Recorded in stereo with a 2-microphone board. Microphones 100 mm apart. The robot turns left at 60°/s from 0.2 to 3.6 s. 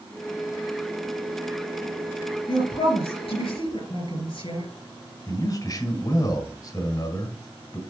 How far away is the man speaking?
About 1.8 m.